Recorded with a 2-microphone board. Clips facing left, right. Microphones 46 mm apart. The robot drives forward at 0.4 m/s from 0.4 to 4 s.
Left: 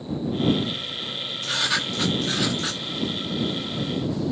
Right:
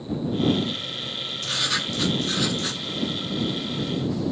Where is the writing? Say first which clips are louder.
Left 2 dB; 10° left (ahead or behind), 3.5 m.